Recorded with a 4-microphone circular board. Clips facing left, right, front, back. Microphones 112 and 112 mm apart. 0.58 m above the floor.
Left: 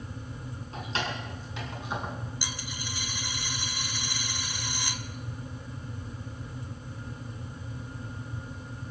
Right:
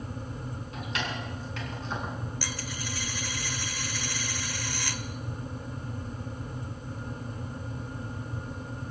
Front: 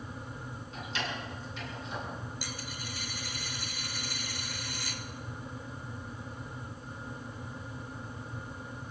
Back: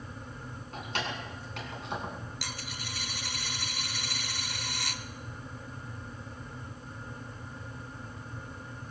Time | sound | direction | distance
0.7 | keys jangling | 145° left | 4 m
2.4 | a dropped coin | 165° left | 0.7 m